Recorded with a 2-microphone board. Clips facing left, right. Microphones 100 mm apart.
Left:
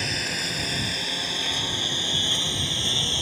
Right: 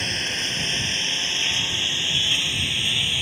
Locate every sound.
0.0 s a lawn mower: 5° left (ahead or behind); by 3.2 s 25° left (ahead or behind)